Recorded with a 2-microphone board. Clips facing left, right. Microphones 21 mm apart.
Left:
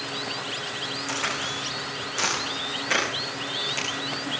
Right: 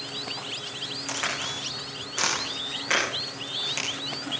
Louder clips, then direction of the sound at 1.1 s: Left 1 dB; 15° right (ahead or behind).